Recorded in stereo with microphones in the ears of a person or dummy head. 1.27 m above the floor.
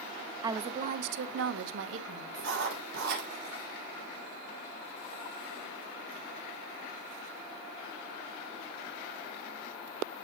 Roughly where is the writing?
Right.